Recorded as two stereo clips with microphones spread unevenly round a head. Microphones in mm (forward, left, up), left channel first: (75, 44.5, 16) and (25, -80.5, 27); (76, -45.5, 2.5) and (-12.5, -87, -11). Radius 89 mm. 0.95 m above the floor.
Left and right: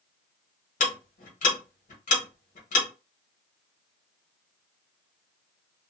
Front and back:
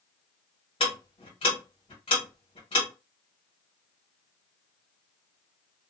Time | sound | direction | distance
0.8 | ticking | 80° left | 1.1 m